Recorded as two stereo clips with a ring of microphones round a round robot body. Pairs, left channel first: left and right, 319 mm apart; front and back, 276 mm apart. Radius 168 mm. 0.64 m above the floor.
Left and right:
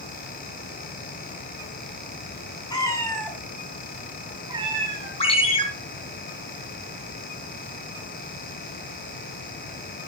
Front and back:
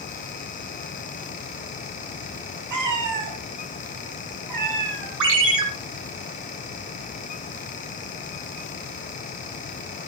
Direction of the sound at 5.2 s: 165° left.